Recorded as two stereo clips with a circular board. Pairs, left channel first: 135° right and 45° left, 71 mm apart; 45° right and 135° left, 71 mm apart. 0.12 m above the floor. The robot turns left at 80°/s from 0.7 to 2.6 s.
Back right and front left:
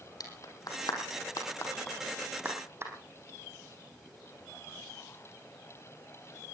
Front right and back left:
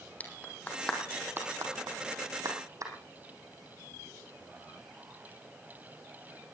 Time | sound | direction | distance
0.2 | a clap | 115° right | 4.5 m